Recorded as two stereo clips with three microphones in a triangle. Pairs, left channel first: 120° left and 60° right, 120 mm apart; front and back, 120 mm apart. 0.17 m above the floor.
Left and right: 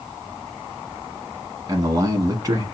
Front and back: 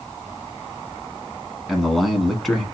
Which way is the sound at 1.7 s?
90° right.